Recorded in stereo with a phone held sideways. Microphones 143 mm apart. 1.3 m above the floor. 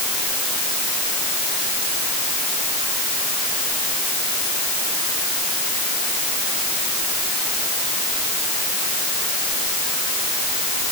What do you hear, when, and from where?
Only background noise.